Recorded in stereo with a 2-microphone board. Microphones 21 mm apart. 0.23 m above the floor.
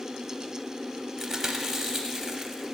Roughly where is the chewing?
Centre.